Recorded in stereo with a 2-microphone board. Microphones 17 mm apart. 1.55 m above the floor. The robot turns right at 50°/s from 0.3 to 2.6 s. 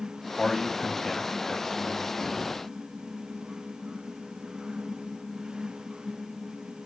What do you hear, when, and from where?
0.4 s a man speaking: straight ahead, 3 m; by 2.5 s 105° left, 3 m